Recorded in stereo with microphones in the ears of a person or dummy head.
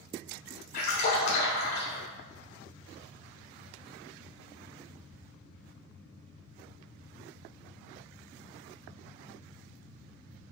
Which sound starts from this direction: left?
A splash, at 0.7 s.